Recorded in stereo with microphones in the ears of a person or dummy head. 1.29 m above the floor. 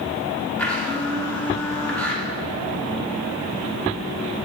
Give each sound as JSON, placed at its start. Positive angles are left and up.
{"t": 0.6, "sound": "a blender", "side_deg": 5, "distance_m": 1.0}